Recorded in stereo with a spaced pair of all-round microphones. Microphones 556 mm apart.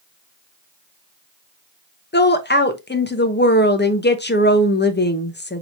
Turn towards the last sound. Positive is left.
turn(degrees=20)  # may be behind; listen again after turning